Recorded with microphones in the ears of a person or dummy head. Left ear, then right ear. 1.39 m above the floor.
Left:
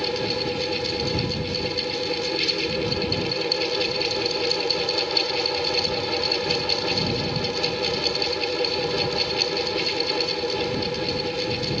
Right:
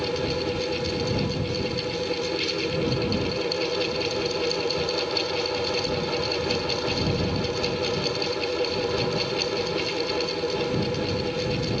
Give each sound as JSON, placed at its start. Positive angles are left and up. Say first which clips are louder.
{"t": 0.0, "sound": "a fan", "louder": "left 2 dB", "side_deg": 20}